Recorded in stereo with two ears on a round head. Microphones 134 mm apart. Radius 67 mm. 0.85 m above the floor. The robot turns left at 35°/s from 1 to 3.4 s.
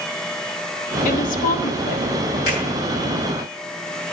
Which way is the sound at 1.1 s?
120° left.